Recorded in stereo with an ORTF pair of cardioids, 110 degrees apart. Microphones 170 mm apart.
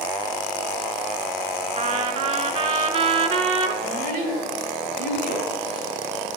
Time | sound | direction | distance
1.8 | a trumpet | 45° right | 1.5 m
3.8 | a child speaking | 70° right | 4.5 m